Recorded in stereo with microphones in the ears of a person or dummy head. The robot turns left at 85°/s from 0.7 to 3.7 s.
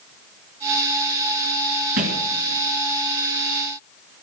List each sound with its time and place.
2.0 s a thud: 45° right (ahead or behind), 1.5 m; by 2.3 s 35° right (ahead or behind), 1.5 m